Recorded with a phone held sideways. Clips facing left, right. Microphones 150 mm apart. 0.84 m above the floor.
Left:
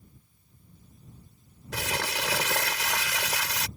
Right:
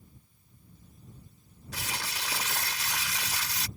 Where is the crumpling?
80° left.